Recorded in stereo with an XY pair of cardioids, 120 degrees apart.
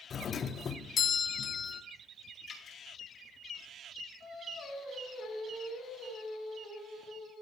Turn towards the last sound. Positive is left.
turn(degrees=60)